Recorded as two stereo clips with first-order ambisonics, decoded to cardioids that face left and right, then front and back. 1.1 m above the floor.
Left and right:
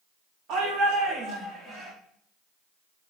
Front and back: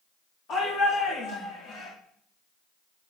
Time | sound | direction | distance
0.5 | a shout | 50° right | 3.5 m